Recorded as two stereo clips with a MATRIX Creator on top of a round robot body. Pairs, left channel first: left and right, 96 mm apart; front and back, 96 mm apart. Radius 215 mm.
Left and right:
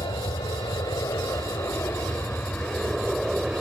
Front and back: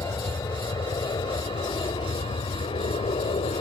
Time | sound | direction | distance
0.0 | an aircraft | 50° left | ?